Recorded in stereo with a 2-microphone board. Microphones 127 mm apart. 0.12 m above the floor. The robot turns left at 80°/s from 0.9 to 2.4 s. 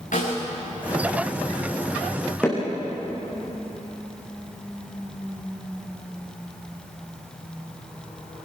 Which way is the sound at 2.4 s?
10° left (ahead or behind).